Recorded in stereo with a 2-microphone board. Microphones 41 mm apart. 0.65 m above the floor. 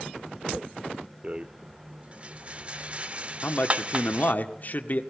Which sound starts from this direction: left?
A man speaking, at 3.4 s.